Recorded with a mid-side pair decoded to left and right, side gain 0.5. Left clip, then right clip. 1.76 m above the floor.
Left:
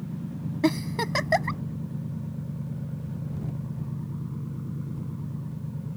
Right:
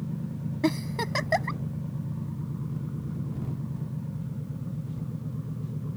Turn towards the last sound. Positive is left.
turn(degrees=15)